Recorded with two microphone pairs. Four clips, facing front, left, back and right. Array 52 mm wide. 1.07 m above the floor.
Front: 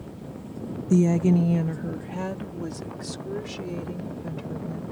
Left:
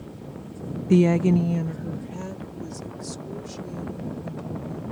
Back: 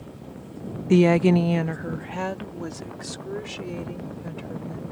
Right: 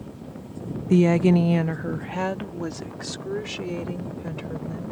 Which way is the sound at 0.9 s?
175° left.